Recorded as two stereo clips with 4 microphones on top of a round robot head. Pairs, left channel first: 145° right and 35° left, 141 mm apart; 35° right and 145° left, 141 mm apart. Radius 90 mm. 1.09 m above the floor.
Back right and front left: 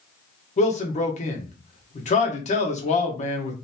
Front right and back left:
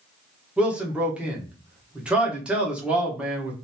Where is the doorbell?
No doorbell in this recording.